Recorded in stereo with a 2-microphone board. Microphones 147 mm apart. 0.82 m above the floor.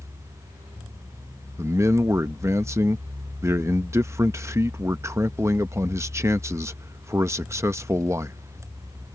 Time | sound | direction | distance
1.6 | a man speaking | 20° right (ahead or behind) | ?